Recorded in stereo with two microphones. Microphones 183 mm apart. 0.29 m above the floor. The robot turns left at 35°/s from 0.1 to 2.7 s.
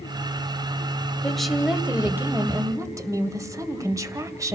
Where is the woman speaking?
5° left (ahead or behind), 1.5 m; by 4.6 s 20° right (ahead or behind), 1.5 m.